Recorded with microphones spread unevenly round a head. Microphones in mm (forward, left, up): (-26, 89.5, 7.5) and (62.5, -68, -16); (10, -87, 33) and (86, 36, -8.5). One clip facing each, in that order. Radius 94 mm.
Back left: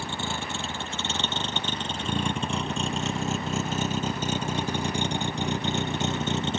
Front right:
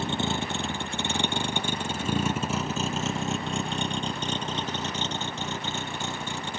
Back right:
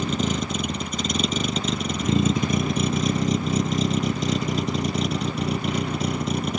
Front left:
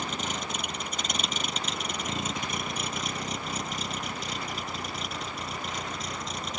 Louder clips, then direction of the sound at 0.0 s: Front right 4 dB, back right 9 dB; 135° right.